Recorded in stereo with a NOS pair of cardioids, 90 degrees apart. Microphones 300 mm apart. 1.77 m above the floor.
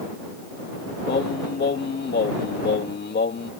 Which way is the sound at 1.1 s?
35° left.